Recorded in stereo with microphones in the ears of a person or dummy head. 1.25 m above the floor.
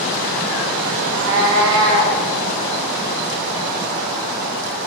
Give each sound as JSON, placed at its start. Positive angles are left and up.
{"t": 1.0, "sound": "a cat meowing", "side_deg": -50, "distance_m": 0.7}